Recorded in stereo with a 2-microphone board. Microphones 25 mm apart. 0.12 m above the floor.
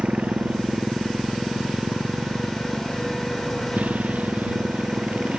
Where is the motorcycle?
55° right (ahead or behind); by 5.4 s 70° right (ahead or behind).